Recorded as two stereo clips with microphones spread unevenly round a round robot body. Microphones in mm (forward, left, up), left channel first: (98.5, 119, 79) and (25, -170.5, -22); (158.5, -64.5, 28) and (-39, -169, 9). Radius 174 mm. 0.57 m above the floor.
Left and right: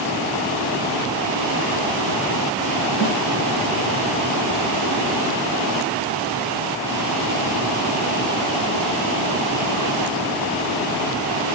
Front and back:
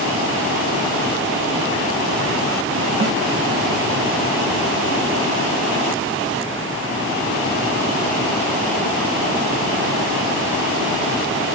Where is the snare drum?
155° left, 0.6 m.